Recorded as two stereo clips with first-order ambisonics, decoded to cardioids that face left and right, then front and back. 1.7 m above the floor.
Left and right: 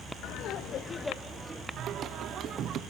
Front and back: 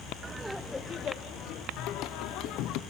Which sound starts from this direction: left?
Laughter, at 0.2 s.